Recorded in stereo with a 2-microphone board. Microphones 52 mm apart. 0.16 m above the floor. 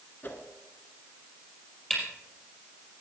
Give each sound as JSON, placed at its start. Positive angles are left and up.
{"t": 0.2, "sound": "a whoosh", "side_deg": 40, "distance_m": 1.5}
{"t": 1.9, "sound": "a camera shutter", "side_deg": 15, "distance_m": 5.5}